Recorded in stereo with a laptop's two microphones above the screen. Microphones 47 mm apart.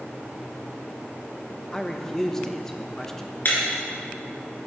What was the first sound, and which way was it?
A man speaking, 10° left (ahead or behind).